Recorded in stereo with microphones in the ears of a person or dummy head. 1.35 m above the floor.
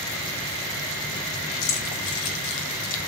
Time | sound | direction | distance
1.6 | keys jangling | 85° left | 2.5 m